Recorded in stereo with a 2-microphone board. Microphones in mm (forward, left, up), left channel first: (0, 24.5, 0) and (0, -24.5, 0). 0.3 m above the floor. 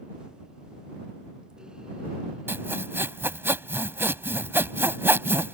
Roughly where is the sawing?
Right.